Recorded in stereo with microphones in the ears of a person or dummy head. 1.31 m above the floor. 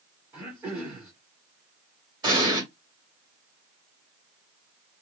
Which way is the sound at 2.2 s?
20° right (ahead or behind).